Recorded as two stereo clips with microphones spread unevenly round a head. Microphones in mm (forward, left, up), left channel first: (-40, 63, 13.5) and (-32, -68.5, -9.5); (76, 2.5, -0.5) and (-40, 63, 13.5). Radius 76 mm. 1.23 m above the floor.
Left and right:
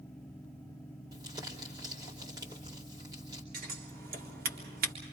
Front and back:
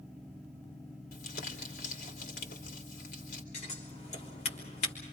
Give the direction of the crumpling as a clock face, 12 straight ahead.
1 o'clock.